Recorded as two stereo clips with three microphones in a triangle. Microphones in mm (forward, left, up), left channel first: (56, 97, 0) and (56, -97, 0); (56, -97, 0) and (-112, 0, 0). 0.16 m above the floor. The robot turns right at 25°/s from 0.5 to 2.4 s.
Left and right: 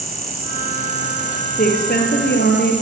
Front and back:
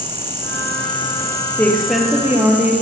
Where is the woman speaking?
50° left, 3.5 m; by 2.7 s 70° left, 3.5 m.